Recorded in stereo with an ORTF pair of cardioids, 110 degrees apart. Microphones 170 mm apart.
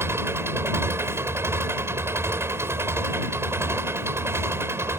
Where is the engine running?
15° right.